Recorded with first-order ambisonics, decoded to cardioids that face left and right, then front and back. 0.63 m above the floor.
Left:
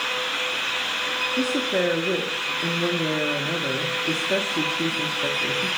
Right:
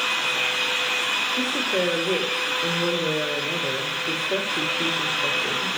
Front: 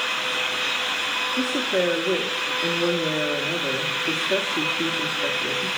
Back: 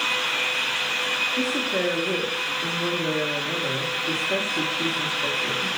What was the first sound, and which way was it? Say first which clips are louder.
A woman speaking: even, front 1 dB; 80° left.